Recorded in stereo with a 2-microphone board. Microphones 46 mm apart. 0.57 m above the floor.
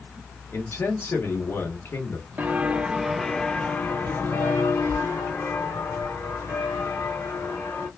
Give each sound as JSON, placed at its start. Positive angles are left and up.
{"t": 0.5, "sound": "a man speaking", "side_deg": 55, "distance_m": 1.3}
{"t": 2.4, "sound": "footsteps", "side_deg": -35, "distance_m": 0.7}